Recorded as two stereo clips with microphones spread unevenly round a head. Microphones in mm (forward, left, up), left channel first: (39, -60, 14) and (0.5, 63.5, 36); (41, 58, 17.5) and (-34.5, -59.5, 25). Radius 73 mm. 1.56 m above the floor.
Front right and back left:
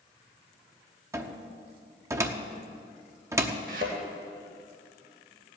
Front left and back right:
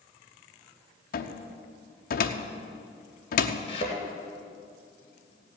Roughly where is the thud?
Left.